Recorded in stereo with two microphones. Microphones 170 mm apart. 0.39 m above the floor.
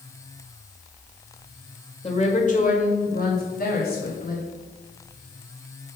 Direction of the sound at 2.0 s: 35° left (ahead or behind).